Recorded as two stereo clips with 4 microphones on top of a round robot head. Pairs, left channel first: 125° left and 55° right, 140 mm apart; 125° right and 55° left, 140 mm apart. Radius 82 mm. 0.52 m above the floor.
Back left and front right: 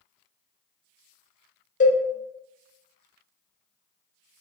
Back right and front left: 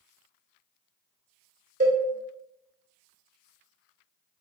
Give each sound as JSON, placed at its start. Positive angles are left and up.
{"t": 1.8, "sound": "a cowbell", "azimuth_deg": 90, "distance_m": 0.8}